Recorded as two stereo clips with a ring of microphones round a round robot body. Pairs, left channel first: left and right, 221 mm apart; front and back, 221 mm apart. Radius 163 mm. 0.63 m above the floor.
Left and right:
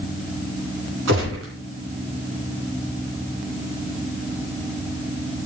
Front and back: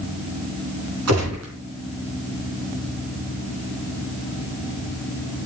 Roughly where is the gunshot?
Behind right.